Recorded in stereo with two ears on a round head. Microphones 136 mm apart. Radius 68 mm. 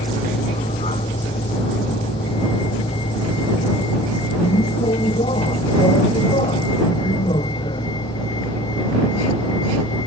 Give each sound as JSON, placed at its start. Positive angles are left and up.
{"t": 0.0, "sound": "a vehicle", "side_deg": 40}